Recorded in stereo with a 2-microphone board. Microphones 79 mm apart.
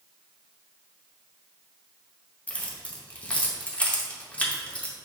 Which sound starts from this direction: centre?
Keys jangling, at 2.5 s.